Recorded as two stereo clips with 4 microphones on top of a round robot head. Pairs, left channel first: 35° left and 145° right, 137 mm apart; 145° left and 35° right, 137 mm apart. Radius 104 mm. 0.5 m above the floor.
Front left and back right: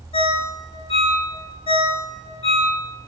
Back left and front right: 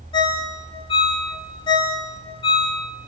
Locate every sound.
0.1 s a ringtone: 90° left, 1.1 m